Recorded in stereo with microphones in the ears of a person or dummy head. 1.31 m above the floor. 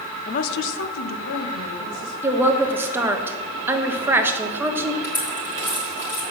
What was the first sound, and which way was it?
A woman speaking, 25° left (ahead or behind).